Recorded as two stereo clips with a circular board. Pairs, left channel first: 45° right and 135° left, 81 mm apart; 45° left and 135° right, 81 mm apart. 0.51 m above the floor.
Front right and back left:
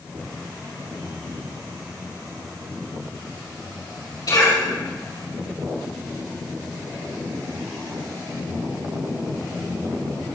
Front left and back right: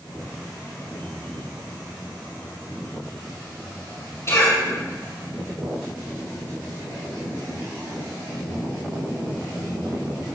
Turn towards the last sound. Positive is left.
turn(degrees=-10)